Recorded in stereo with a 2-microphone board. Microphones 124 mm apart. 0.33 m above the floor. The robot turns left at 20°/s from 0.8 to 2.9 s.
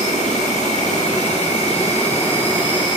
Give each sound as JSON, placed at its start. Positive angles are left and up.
{"t": 0.0, "sound": "an insect", "azimuth_deg": 85, "distance_m": 2.5}